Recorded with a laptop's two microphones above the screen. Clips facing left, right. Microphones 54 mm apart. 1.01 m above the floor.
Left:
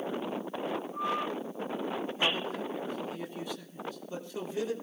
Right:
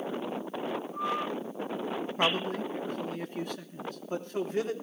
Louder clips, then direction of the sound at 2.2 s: Right 4 dB; 55° right (ahead or behind).